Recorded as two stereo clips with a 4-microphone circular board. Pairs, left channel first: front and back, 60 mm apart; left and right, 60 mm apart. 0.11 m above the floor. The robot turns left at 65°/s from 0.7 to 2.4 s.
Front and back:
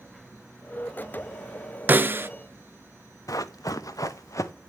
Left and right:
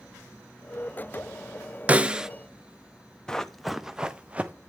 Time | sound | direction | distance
1.9 | a snare drum | 140° right | 0.5 m
3.3 | running footsteps | 10° left | 0.9 m